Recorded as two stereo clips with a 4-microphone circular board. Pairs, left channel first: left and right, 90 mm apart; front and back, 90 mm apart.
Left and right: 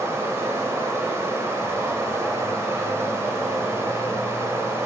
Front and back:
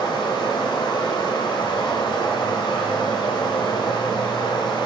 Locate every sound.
0.0 s running water: 30° right, 1.4 m